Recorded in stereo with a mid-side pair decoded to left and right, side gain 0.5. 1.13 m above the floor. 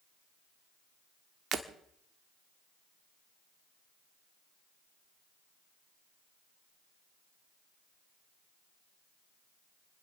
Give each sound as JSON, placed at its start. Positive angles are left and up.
{"t": 1.5, "sound": "breaking glass", "azimuth_deg": -50, "distance_m": 1.4}